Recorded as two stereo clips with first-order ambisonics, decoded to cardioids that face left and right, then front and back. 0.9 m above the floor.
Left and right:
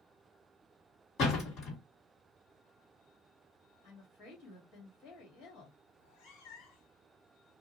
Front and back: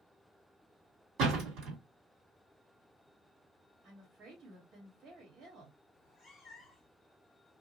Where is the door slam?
135° left, 1.7 m.